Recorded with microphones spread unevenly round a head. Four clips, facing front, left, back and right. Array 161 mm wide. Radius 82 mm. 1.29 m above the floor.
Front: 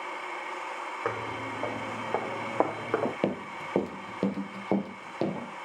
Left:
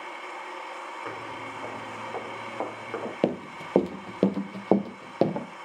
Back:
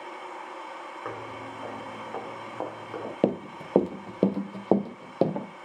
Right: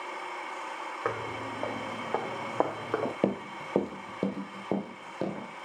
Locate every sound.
1.1 s footsteps: 50° right, 4 m; by 3.1 s 20° right, 3 m
3.2 s running footsteps: 130° left, 1.3 m; by 5.5 s 120° left, 2.5 m